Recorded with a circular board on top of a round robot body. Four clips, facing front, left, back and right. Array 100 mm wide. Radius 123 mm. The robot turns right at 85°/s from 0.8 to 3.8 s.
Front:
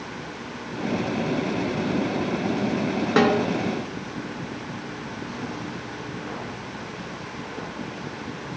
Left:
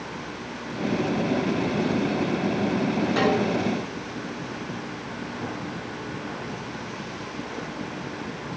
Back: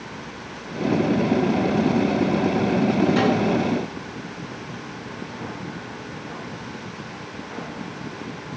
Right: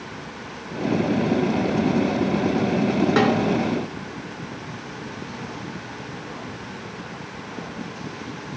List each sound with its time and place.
3.2 s a snare drum: 30° right, 2.5 m; by 3.4 s 10° right, 2.5 m